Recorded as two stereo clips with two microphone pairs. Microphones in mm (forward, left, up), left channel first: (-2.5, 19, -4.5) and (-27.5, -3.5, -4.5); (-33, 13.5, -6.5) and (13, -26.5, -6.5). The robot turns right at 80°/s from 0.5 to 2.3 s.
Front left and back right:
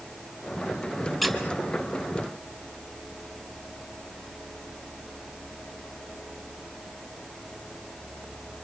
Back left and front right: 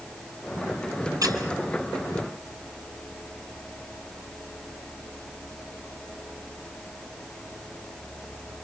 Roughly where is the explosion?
No explosion in this recording.